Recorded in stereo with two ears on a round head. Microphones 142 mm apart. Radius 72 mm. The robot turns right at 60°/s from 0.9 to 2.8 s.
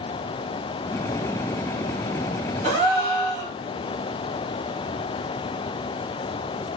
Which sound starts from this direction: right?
A gasp, at 2.6 s.